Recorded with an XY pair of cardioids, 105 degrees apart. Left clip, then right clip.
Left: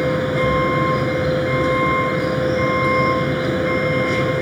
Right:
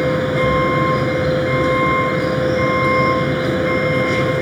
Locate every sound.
0.0 s a vehicle: 5° right